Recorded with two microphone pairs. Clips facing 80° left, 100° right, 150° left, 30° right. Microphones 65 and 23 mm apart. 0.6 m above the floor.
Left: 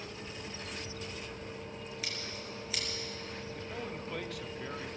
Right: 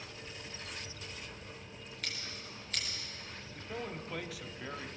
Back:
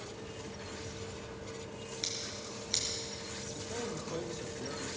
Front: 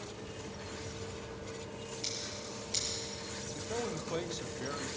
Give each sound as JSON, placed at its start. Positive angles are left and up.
{"t": 2.0, "sound": "scissors", "azimuth_deg": 165, "distance_m": 5.0}
{"t": 3.5, "sound": "a man speaking", "azimuth_deg": -15, "distance_m": 0.8}